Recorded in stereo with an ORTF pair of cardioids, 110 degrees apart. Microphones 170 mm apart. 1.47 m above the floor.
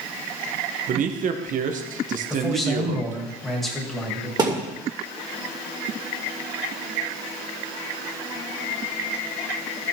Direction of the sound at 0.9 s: 55° right.